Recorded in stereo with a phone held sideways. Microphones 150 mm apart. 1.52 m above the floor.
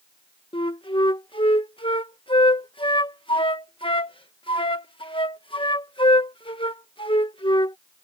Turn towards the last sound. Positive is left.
turn(degrees=35)  # may be behind; listen again after turning